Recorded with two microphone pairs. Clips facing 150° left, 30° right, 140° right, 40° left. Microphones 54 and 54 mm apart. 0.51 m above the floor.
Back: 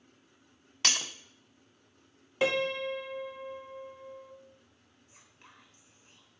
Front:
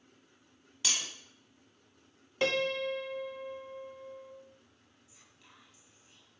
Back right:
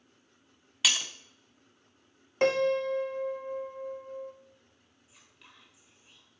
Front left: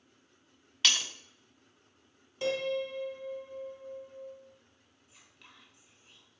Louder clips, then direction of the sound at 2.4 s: Back 1 dB, back right 6 dB; 135° right.